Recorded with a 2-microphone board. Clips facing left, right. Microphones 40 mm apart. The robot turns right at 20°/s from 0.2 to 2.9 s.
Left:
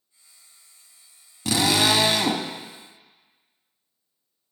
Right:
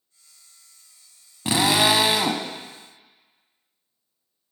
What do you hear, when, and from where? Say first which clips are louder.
1.4 s a drill: right 1 dB; 25° right (ahead or behind), 0.7 m; by 2.5 s 15° right (ahead or behind), 0.7 m